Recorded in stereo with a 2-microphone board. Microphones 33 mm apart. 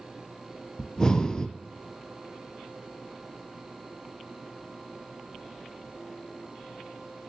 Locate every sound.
0.8 s breathing: 20° left (ahead or behind), 0.6 m